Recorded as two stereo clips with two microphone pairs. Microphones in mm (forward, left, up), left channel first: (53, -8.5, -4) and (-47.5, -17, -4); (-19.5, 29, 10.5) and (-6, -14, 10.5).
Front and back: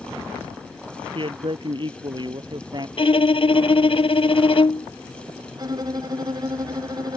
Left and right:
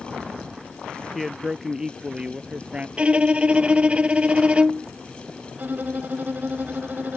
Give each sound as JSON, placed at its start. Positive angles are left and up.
{"t": 1.1, "sound": "a man speaking", "azimuth_deg": -160}
{"t": 3.0, "sound": "a violin", "azimuth_deg": -10}
{"t": 5.5, "sound": "a violin", "azimuth_deg": -125}